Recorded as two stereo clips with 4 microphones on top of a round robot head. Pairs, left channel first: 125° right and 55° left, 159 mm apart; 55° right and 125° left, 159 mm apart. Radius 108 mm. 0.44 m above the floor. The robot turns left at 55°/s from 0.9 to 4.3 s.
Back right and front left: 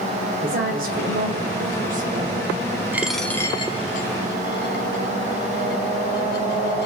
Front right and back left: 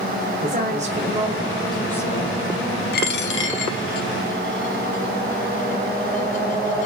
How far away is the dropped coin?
About 0.9 m.